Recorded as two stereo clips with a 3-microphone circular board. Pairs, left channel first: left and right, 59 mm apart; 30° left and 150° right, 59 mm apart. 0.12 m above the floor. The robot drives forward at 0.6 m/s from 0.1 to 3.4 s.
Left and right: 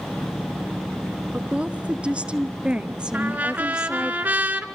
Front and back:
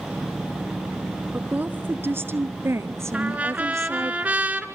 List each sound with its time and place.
1.3 s a woman speaking: 125° right, 1.2 m; by 4.1 s 165° right, 1.9 m
3.1 s a trumpet: 105° right, 1.7 m; by 4.7 s 115° right, 1.7 m